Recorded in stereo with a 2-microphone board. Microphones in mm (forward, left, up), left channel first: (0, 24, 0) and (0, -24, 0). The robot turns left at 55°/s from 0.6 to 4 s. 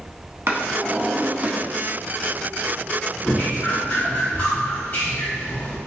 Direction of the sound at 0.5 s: 55° right (ahead or behind).